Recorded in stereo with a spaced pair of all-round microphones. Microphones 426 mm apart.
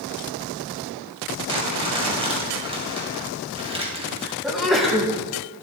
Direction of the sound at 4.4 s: Centre (ahead or behind).